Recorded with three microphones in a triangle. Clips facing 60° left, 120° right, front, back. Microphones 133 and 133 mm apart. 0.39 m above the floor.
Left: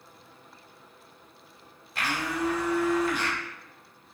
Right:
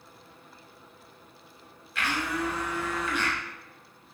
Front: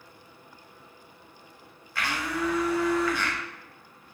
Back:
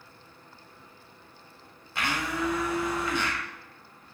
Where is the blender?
110° left, 0.6 m.